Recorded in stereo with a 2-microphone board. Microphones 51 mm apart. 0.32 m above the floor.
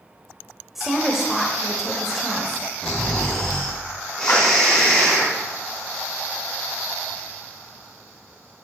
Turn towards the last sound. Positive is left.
turn(degrees=50)  # may be behind; listen again after turning